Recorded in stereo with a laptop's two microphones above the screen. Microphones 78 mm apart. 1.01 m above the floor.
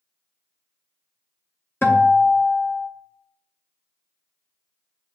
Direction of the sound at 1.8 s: 30° left (ahead or behind).